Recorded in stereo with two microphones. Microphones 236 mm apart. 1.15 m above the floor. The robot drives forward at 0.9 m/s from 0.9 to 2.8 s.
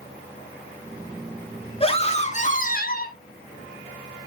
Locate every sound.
1.8 s a scream: 25° left (ahead or behind), 2 m; by 3.2 s 40° left (ahead or behind), 1.4 m